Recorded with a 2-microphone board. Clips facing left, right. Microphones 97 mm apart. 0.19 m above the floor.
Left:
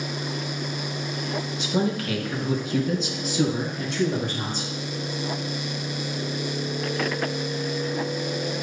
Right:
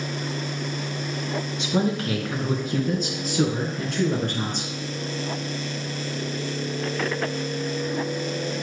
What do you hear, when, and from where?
1.6 s a man speaking: 20° right (ahead or behind), 2.5 m; by 4.7 s 60° right (ahead or behind), 3.5 m